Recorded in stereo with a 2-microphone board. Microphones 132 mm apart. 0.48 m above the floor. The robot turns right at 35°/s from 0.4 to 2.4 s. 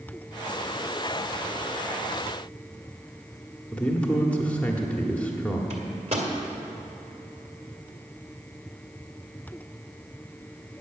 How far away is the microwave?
About 1.7 m.